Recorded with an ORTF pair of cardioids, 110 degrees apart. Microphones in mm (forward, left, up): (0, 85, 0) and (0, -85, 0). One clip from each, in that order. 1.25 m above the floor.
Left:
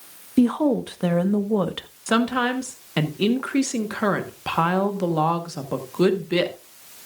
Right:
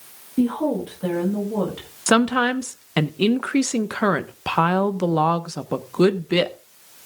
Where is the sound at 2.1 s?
35° right, 1.1 m.